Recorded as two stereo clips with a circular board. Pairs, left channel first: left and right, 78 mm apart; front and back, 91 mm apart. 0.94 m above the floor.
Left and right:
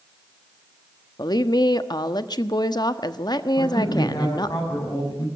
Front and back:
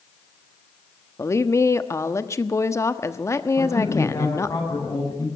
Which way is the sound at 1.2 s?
60° left.